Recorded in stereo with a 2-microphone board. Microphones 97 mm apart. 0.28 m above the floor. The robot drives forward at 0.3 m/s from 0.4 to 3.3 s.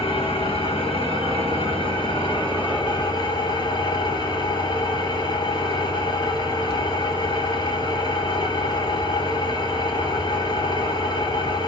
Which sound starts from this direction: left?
An engine running, at 0.0 s.